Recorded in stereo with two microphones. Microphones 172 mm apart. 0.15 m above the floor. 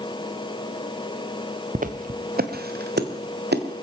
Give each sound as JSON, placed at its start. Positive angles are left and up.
{"t": 1.8, "sound": "footsteps", "side_deg": -50, "distance_m": 1.1}